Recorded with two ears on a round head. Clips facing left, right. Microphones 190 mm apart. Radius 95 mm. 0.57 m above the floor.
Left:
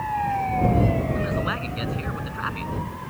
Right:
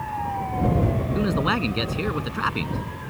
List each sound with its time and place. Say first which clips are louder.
1.1 s a man speaking: right 4 dB; 60° right (ahead or behind)